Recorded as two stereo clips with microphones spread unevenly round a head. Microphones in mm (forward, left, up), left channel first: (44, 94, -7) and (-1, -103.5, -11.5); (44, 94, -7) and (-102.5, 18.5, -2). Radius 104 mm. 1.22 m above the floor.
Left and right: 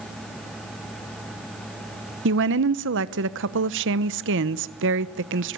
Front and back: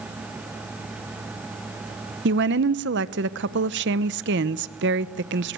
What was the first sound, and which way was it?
A woman speaking, 135° right.